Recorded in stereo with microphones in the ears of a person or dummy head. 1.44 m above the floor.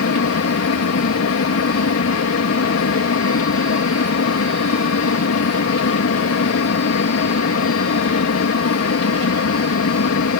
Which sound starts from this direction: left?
A fan, at 0.0 s.